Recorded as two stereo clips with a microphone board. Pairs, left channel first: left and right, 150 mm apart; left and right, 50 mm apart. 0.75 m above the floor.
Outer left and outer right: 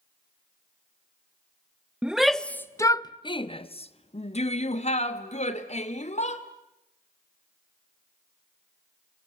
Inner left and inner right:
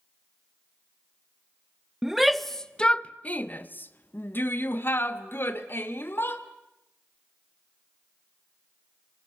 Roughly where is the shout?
Centre.